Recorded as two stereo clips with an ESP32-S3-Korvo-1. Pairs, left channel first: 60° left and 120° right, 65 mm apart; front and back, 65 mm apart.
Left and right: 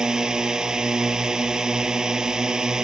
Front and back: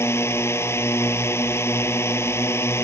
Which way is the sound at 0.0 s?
40° right.